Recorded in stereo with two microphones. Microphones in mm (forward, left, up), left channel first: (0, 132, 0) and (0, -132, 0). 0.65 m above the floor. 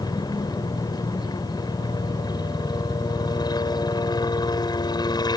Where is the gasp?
I don't hear a gasp.